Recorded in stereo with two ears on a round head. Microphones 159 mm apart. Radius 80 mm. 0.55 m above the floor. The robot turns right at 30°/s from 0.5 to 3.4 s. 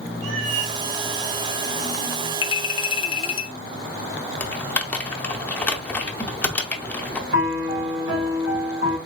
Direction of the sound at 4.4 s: 10° left (ahead or behind).